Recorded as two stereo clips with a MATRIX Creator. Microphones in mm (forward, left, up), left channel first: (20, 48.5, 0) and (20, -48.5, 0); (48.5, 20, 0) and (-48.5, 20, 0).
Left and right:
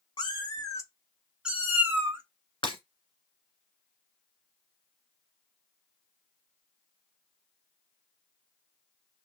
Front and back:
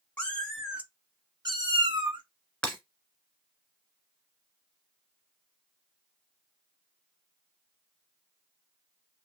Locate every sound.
0.2 s a cat meowing: 65° left, 0.9 m; by 2.2 s 155° right, 1.4 m
2.6 s breaking glass: 80° left, 1.4 m